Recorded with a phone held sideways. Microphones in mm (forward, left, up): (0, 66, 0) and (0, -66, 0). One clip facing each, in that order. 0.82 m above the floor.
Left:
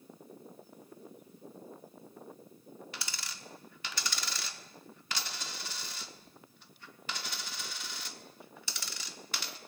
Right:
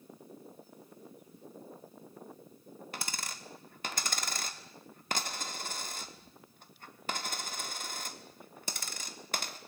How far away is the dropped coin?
About 1.1 m.